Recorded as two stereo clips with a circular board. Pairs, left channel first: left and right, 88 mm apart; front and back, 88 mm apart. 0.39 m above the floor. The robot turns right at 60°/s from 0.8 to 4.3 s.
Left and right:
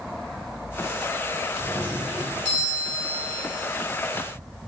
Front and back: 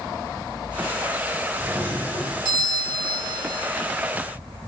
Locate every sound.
1.6 s a doorbell: 130° left, 2 m; by 3.4 s 120° right, 2 m